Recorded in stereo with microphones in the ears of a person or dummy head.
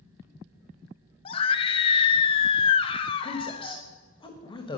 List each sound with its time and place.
1.2 s a scream: 30° left (ahead or behind), 0.7 m
3.2 s a woman speaking: 25° left (ahead or behind), 1.3 m